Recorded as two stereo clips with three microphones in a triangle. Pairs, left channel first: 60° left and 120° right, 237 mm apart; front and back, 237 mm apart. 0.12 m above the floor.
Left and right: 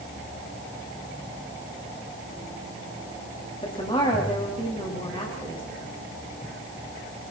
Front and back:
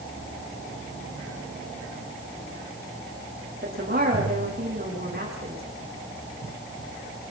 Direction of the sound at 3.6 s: 130° left.